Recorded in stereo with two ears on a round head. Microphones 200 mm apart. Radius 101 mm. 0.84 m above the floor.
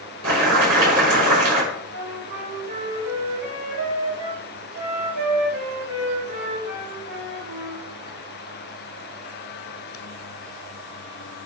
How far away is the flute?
About 4 m.